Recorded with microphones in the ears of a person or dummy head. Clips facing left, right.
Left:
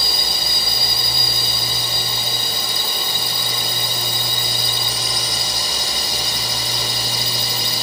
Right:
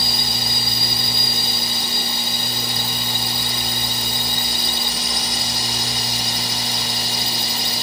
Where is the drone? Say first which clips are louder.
Right 1 dB; 75° left (ahead or behind).